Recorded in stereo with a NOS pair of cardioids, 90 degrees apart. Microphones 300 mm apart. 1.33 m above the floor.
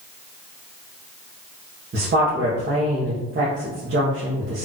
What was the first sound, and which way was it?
A woman speaking, 40° right.